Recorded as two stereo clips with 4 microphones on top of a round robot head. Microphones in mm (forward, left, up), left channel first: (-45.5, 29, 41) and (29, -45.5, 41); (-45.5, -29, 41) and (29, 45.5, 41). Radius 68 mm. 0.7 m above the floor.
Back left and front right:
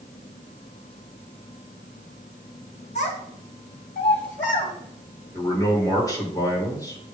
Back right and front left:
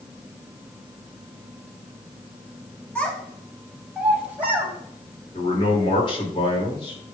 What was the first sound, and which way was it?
A child speaking, 150° left.